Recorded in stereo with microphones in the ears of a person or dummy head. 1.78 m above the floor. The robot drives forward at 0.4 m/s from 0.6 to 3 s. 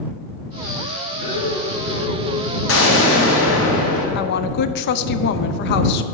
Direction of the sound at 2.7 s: 80° left.